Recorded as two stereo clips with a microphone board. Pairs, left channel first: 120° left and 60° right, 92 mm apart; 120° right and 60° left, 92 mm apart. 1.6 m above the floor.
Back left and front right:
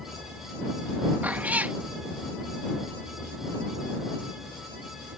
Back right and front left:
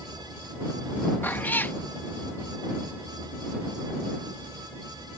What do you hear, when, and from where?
1.2 s a cat meowing: 95° right